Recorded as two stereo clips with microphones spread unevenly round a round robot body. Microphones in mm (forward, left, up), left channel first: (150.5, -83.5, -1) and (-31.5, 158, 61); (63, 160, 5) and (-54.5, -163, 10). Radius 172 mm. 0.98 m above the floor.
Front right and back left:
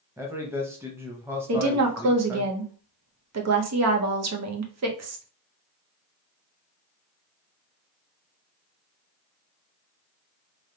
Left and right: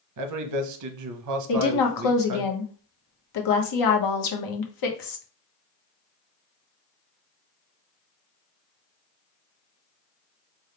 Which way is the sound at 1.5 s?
90° left.